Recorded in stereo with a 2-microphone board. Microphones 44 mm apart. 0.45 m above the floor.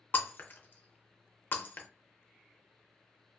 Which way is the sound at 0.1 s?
50° left (ahead or behind).